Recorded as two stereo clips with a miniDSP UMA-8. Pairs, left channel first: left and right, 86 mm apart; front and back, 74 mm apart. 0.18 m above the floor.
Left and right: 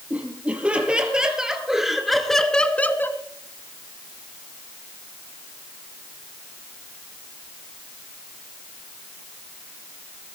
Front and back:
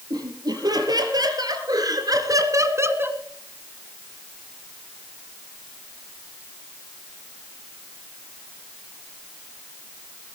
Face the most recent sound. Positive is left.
turn(degrees=130)